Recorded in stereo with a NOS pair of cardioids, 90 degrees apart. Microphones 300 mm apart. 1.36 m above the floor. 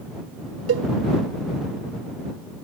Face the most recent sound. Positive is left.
turn(degrees=-50)